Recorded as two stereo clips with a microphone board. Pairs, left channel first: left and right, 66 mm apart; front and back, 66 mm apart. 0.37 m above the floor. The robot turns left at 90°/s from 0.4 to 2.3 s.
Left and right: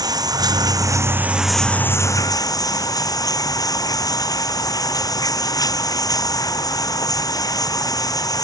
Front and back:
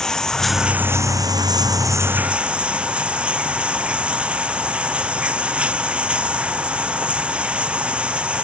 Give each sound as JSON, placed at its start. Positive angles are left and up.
{"t": 0.0, "sound": "running water", "azimuth_deg": -80}